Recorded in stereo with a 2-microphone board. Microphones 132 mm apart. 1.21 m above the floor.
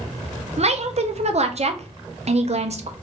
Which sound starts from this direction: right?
A woman speaking, at 0.6 s.